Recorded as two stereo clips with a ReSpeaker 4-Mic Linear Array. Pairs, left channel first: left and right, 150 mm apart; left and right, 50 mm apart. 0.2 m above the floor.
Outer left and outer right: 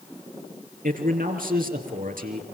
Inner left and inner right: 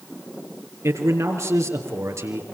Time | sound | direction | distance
0.8 | a man speaking | 70° right (ahead or behind) | 4.5 m